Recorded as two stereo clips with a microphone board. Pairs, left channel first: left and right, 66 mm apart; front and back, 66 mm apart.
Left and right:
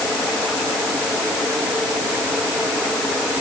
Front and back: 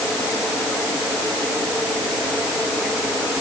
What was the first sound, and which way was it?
Only background noise.